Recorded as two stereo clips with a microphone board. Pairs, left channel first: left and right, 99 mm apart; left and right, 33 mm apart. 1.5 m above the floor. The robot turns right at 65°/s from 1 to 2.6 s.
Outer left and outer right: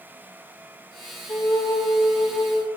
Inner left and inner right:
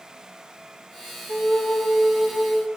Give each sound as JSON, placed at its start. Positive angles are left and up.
{"t": 1.3, "sound": "a flute", "azimuth_deg": 35, "distance_m": 2.0}